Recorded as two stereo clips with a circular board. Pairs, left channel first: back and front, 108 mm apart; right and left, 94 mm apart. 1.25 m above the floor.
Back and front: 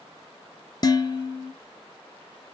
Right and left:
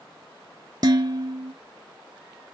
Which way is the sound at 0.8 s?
130° left.